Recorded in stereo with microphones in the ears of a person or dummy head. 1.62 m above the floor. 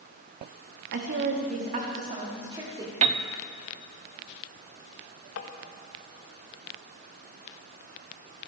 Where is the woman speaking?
55° right (ahead or behind), 2.5 m; by 2.9 s 20° right (ahead or behind), 4 m.